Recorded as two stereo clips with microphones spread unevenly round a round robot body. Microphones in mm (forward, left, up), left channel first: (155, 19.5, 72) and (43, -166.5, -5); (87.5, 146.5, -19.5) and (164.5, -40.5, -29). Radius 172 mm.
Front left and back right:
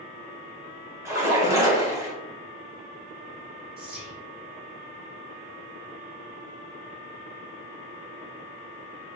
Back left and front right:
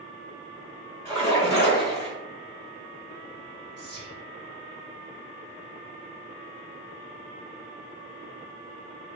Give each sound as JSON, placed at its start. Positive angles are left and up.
{"t": 1.1, "sound": "a splash", "azimuth_deg": -170, "distance_m": 0.8}
{"t": 3.8, "sound": "whispering", "azimuth_deg": -95, "distance_m": 1.5}